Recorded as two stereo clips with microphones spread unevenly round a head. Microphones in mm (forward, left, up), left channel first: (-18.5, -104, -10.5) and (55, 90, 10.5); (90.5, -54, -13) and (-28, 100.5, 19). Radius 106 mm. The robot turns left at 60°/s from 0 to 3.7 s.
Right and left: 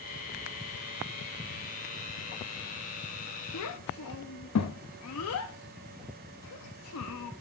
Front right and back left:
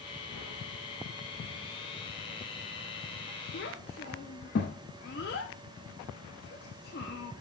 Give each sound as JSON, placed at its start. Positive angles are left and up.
{"t": 3.5, "sound": "a child speaking", "azimuth_deg": -90, "distance_m": 0.7}